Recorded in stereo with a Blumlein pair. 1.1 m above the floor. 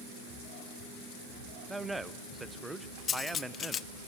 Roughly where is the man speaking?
Ahead.